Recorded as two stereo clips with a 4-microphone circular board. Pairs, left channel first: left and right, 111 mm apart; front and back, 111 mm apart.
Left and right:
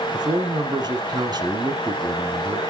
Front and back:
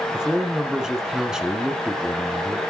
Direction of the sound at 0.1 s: 100° right.